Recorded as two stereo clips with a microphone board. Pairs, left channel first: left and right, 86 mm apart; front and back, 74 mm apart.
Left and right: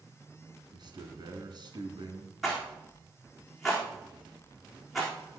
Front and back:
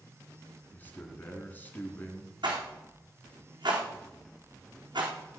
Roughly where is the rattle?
Behind.